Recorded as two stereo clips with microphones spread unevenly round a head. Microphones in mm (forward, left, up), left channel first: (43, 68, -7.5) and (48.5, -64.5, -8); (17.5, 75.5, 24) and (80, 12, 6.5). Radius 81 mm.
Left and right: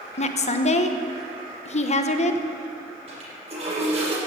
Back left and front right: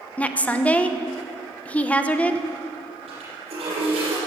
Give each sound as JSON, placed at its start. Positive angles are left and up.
{"t": 0.2, "sound": "a woman speaking", "azimuth_deg": 55, "distance_m": 1.2}
{"t": 3.1, "sound": "a toilet flushing", "azimuth_deg": -45, "distance_m": 6.5}